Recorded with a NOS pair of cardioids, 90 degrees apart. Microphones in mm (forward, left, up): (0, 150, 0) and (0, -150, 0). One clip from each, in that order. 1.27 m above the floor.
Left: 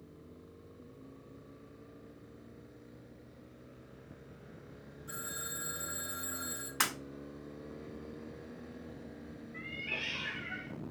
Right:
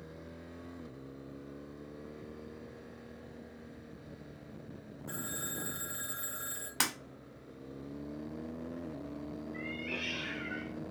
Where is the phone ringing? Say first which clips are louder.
Right 1 dB; 20° right, 1.3 m.